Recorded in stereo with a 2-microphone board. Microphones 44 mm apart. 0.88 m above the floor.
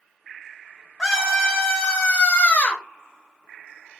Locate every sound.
1.0 s a scream: 10° left (ahead or behind), 1.0 m; by 2.8 s 30° left (ahead or behind), 0.7 m